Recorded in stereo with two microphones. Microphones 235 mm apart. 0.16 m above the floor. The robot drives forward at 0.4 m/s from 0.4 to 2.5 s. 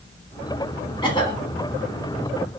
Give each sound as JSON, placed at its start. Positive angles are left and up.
{"t": 1.0, "sound": "a cough", "side_deg": 20, "distance_m": 1.1}